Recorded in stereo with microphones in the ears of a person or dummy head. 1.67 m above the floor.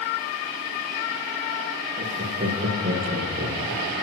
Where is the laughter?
40° right (ahead or behind), 1.7 m; by 4.0 s 55° right (ahead or behind), 3 m.